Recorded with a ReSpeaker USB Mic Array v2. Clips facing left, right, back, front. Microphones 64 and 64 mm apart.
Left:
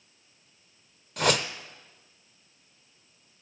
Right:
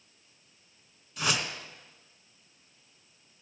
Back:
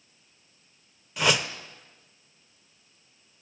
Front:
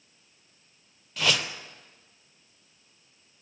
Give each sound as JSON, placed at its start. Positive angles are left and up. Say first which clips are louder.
{"t": 1.2, "sound": "a whoosh", "louder": "left 6 dB, back 3 dB", "azimuth_deg": 100, "distance_m": 0.9}